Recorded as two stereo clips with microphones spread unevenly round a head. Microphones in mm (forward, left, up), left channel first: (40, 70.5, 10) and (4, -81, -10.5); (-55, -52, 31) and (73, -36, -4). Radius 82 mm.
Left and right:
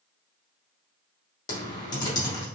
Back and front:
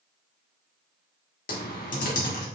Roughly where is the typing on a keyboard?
Behind left.